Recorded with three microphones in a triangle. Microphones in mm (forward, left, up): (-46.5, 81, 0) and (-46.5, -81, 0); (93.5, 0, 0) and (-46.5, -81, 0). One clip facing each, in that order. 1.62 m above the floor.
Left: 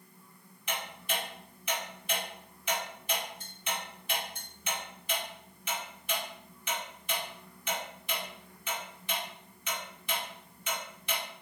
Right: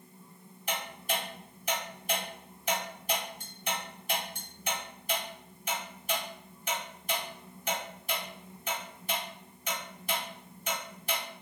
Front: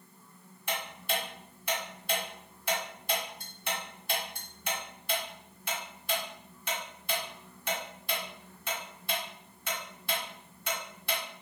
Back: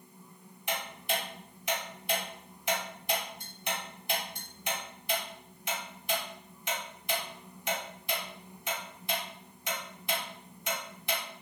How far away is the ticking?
About 1.7 m.